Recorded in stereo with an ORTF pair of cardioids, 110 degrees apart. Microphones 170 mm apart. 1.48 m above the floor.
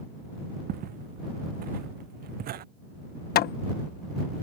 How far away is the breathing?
No breathing in this recording.